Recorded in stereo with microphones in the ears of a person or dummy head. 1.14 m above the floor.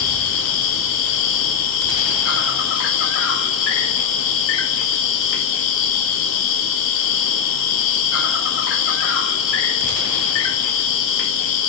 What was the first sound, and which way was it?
An insect, 70° left (ahead or behind).